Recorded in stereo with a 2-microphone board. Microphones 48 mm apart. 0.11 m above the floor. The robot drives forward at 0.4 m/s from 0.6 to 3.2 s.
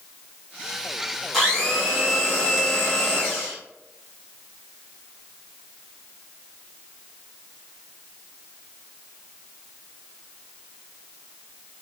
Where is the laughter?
No laughter in this recording.